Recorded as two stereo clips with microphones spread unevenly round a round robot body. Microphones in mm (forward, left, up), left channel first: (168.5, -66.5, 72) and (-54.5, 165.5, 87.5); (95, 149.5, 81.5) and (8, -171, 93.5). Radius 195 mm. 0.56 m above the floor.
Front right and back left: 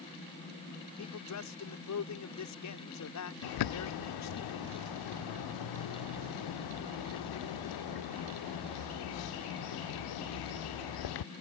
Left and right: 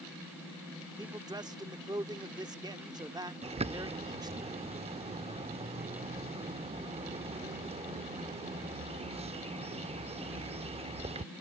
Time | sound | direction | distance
1.0 | a man speaking | 25° right | ?
3.4 | a bird | 30° right | ?